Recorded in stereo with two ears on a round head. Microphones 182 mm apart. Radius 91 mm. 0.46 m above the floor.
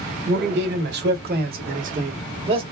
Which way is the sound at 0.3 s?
55° right (ahead or behind).